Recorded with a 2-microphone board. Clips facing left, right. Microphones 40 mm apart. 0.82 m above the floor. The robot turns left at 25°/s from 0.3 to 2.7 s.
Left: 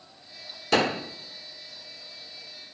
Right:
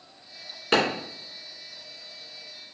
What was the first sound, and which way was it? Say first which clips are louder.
A clap: even; 35° right (ahead or behind).